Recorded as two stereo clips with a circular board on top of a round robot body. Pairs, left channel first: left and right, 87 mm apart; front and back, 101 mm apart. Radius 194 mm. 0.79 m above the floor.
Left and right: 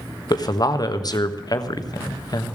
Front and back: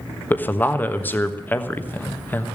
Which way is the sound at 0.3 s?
65° left.